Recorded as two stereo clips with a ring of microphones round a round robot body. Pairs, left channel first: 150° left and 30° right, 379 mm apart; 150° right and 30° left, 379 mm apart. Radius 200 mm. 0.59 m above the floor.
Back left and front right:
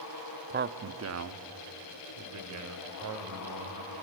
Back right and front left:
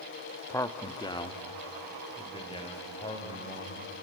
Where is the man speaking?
75° right, 0.8 m.